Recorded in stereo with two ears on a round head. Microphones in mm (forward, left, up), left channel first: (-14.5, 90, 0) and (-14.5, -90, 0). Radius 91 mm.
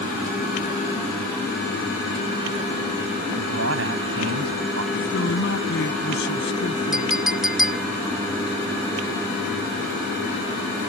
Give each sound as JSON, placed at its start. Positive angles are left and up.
{"t": 3.4, "sound": "a man speaking", "side_deg": -75}
{"t": 4.9, "sound": "a man speaking", "side_deg": 60}
{"t": 6.9, "sound": "a clink", "side_deg": 0}